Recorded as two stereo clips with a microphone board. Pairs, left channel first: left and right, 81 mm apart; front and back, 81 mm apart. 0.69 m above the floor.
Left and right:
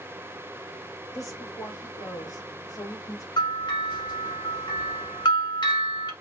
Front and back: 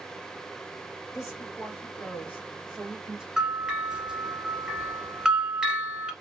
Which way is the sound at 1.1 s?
45° left.